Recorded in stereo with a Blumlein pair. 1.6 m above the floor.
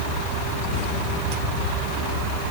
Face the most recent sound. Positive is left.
No sound to turn to.